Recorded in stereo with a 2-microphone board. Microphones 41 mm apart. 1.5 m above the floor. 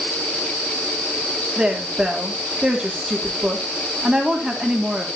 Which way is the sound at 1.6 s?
15° right (ahead or behind).